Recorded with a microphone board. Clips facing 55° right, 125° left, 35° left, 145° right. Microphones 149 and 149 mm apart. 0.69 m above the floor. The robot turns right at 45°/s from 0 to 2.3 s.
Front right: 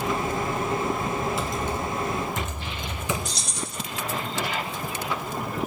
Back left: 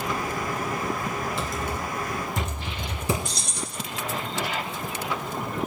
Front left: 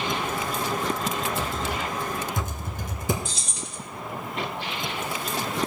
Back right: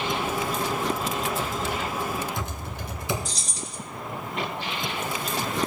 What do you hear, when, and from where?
1.4 s typing on a keyboard: 30° left, 2 m; by 3.1 s 75° left, 2 m
3.2 s keys jangling: 160° left, 1.5 m